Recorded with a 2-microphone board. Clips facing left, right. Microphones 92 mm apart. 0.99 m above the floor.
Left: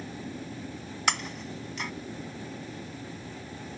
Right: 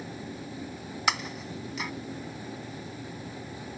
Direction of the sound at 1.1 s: 5° right (ahead or behind).